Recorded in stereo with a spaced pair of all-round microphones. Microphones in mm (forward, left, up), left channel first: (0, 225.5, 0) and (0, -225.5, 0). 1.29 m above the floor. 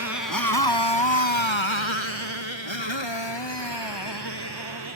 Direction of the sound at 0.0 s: 35° left (ahead or behind).